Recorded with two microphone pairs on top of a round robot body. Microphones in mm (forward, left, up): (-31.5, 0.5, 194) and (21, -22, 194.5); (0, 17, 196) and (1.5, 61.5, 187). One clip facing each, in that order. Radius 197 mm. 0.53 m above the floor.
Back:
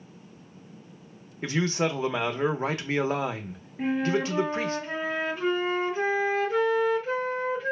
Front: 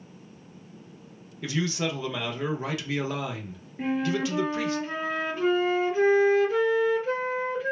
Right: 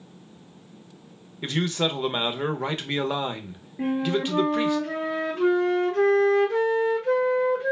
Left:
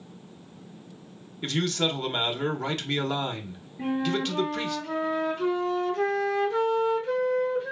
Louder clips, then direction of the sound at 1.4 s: Back 2 dB, right 1 dB; 165° right.